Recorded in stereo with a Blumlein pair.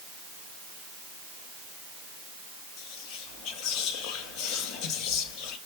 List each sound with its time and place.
2.8 s whispering: 35° left, 1.3 m